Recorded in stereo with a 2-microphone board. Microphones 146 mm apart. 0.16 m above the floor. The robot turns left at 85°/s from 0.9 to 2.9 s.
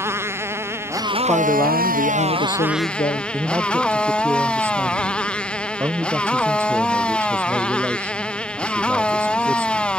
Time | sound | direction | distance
0.0 | a motorcycle | 15° right | ?
1.3 | a man speaking | straight behind | ?
3.3 | a man speaking | 20° right (ahead or behind) | ?